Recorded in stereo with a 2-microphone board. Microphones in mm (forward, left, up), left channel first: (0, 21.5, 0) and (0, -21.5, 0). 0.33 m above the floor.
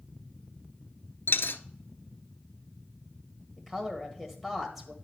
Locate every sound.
1.3 s a dropped coin: 65° left (ahead or behind), 0.5 m
3.6 s a woman speaking: 5° right (ahead or behind), 1.5 m